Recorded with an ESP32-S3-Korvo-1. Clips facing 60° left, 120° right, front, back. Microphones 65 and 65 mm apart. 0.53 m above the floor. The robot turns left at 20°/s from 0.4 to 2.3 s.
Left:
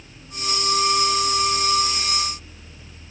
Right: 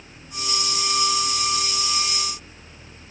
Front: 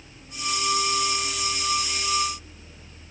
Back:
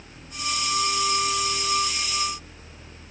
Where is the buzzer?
I don't hear a buzzer.